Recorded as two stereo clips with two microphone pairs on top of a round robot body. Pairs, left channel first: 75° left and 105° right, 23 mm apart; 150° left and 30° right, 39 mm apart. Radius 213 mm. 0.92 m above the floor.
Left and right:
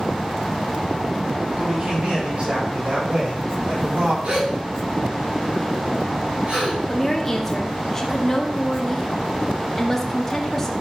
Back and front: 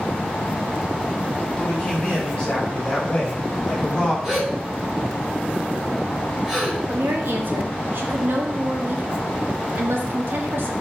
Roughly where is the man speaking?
Behind right.